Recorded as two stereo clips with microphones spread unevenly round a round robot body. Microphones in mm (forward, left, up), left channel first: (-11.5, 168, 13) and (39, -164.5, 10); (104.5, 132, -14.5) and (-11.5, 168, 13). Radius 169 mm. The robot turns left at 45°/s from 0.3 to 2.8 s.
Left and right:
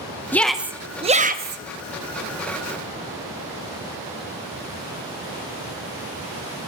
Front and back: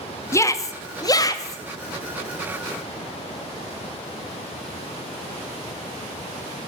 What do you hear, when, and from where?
0.3 s a shout: 15° left, 0.7 m; by 1.6 s 40° right, 0.7 m